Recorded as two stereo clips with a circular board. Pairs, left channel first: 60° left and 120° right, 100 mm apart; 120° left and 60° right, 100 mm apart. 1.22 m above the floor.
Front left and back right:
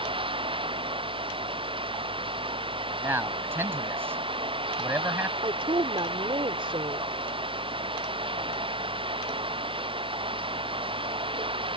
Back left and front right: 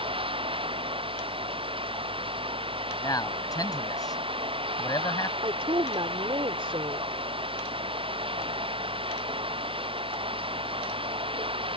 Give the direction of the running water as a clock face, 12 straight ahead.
3 o'clock.